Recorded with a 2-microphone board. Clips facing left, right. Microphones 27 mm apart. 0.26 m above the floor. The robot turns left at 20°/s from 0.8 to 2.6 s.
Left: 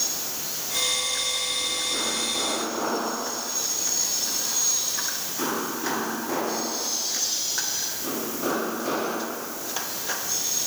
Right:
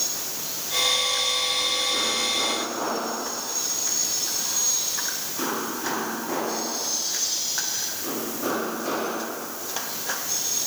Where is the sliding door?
I don't hear a sliding door.